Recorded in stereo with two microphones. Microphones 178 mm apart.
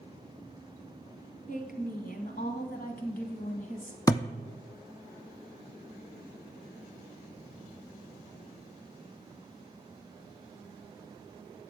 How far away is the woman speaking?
About 2.5 m.